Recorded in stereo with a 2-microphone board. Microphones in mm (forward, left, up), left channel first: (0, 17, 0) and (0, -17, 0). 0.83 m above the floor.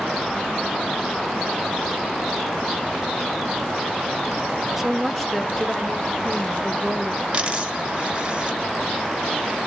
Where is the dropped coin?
25° right (ahead or behind), 1.6 m.